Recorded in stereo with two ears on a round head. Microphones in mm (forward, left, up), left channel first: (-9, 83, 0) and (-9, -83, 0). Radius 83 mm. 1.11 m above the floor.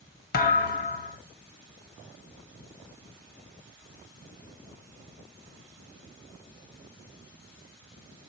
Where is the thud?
50° left (ahead or behind), 1.0 m.